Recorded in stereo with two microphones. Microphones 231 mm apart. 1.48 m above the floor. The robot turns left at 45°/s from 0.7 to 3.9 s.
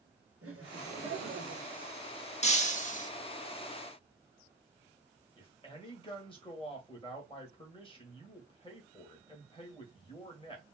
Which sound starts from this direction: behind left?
Breaking glass, at 2.4 s.